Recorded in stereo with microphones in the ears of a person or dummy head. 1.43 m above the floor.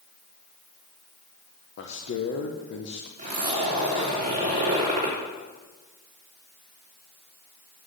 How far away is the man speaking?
About 1.0 m.